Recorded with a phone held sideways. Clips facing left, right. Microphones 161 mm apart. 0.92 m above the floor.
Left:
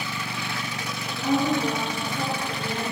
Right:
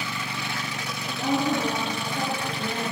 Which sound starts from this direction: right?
A woman speaking, at 1.1 s.